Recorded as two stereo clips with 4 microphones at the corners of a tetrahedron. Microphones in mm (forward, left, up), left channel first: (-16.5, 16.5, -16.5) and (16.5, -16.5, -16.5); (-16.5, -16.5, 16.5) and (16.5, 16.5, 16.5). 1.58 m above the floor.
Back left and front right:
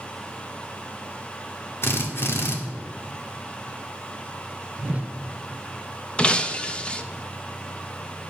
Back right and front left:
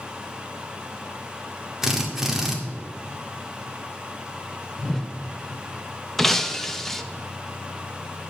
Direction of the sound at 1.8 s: 125° left.